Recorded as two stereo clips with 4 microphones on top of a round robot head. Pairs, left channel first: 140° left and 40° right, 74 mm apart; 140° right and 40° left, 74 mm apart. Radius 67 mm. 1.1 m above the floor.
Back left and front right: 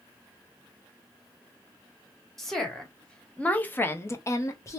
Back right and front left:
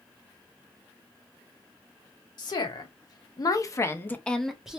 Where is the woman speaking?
130° right, 1.3 m; by 4.8 s 110° left, 0.7 m.